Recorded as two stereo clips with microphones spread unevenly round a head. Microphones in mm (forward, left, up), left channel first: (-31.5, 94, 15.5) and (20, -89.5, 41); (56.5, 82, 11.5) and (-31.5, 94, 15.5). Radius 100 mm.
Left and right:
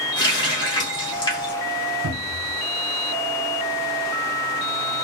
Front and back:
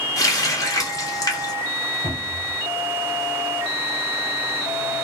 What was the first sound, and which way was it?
A running tap, 35° left.